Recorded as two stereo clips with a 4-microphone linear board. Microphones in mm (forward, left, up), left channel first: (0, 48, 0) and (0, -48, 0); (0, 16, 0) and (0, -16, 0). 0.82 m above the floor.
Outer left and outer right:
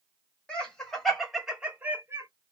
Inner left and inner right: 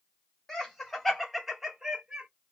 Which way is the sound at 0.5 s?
10° left (ahead or behind).